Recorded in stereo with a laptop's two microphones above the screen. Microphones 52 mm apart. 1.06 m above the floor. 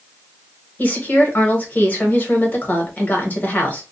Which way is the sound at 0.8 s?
30° left (ahead or behind).